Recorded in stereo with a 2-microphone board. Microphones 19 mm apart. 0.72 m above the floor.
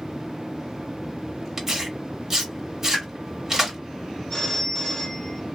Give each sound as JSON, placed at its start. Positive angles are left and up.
{"t": 1.6, "sound": "tearing paper", "side_deg": -15, "distance_m": 1.7}
{"t": 2.9, "sound": "a pop", "side_deg": 30, "distance_m": 2.5}
{"t": 4.3, "sound": "a phone ringing", "side_deg": 30, "distance_m": 1.8}